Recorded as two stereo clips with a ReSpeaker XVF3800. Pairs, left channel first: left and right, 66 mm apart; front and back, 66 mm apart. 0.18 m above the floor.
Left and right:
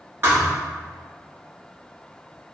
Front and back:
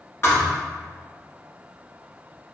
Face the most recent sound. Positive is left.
turn(degrees=-45)